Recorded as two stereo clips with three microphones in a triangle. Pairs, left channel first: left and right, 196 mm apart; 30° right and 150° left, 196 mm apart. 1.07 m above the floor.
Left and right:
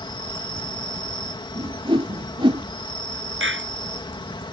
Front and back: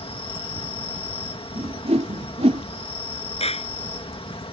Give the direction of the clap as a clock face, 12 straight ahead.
3 o'clock.